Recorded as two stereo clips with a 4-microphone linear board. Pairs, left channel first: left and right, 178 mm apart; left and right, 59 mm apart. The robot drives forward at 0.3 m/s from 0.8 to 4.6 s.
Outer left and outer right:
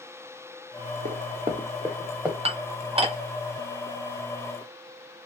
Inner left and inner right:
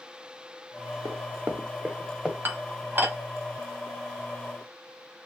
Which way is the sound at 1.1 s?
50° right (ahead or behind).